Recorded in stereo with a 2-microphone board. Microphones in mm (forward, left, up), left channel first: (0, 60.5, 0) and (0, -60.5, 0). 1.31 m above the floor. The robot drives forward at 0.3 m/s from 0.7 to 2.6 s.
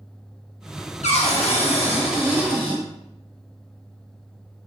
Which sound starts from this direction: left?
A cupboard door, at 1.0 s.